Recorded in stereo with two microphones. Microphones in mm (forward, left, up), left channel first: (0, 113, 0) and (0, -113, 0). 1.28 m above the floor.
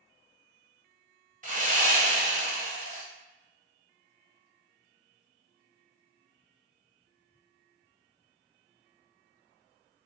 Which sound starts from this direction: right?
Sawing, at 1.4 s.